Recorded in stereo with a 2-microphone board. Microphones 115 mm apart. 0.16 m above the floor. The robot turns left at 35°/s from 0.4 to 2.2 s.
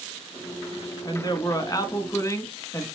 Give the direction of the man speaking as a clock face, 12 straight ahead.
9 o'clock.